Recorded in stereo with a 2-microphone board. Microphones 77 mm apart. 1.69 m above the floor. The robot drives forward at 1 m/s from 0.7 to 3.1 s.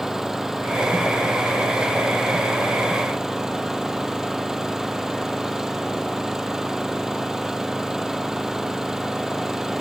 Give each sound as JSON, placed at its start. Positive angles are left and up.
{"t": 0.0, "sound": "an engine running", "side_deg": -5}